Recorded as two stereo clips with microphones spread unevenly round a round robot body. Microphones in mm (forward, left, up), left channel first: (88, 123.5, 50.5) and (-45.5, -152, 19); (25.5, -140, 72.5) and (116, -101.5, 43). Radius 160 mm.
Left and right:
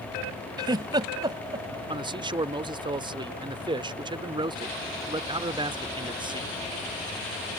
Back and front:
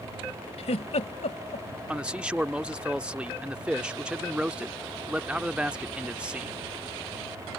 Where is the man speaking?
45° right.